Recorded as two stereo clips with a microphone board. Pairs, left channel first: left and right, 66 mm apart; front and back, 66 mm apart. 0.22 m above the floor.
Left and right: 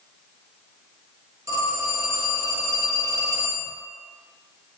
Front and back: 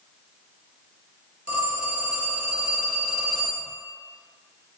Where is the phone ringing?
105° right, 1.5 m.